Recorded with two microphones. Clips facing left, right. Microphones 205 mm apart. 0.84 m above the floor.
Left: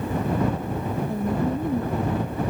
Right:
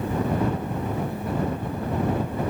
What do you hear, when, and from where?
1.1 s a woman speaking: 45° left (ahead or behind)